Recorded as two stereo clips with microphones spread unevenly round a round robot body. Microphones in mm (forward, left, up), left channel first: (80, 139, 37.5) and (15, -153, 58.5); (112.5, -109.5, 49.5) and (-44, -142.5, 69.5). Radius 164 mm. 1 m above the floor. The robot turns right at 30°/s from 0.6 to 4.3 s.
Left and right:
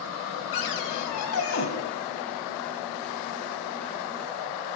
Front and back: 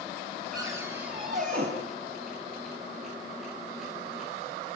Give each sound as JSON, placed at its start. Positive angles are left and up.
{"t": 0.5, "sound": "a cupboard door", "azimuth_deg": 105, "distance_m": 3.0}